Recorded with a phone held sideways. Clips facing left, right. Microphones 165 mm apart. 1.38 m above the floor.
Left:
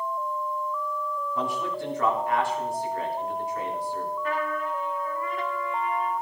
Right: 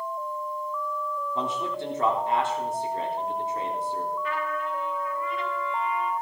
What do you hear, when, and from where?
1.4 s a man speaking: 25° right (ahead or behind), 3.5 m
4.2 s a trumpet: 45° left (ahead or behind), 2.5 m